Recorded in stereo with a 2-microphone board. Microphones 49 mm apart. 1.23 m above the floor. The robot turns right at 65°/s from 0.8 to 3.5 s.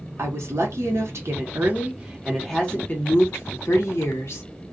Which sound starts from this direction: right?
A woman speaking, at 0.2 s.